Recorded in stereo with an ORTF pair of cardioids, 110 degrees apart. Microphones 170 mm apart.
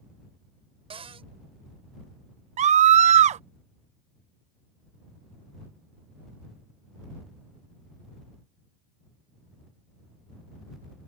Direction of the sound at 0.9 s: 35° right.